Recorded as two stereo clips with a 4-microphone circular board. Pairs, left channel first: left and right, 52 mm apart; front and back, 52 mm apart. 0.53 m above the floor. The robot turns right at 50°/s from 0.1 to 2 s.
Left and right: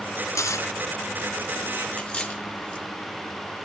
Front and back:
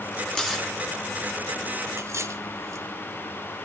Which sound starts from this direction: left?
Tearing paper, at 0.3 s.